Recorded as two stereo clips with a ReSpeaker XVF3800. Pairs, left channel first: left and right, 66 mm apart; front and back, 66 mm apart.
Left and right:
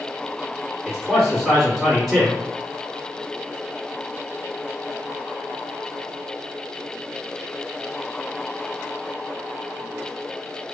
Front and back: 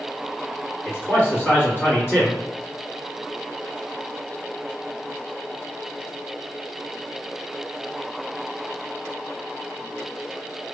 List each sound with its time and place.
0.8 s a man speaking: 5° left, 1.4 m